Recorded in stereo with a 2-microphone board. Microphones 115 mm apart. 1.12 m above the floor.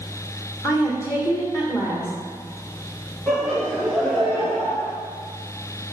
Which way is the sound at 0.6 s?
25° left (ahead or behind).